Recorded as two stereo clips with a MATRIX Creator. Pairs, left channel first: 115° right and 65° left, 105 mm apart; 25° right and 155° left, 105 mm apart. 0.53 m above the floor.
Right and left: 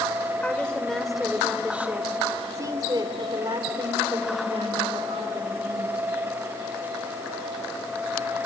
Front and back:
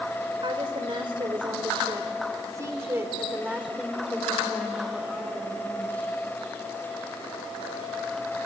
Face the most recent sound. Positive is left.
turn(degrees=55)